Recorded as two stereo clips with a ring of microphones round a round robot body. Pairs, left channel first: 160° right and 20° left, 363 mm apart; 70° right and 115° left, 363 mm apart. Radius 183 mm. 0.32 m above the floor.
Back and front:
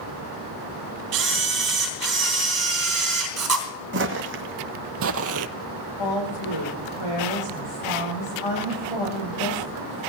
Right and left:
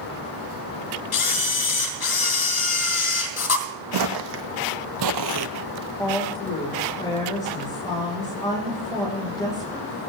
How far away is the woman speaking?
About 9.5 m.